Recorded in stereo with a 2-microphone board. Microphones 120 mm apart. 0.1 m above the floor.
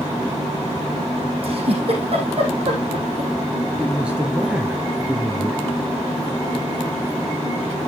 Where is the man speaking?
10° right (ahead or behind), 1.9 m.